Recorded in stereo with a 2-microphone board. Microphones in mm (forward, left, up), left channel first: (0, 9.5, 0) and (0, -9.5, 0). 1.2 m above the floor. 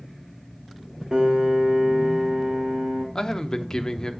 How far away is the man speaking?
About 0.9 m.